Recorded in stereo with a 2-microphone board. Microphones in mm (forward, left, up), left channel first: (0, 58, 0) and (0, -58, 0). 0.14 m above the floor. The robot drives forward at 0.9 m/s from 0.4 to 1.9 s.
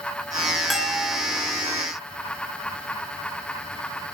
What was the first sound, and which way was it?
A bell, centre (ahead or behind).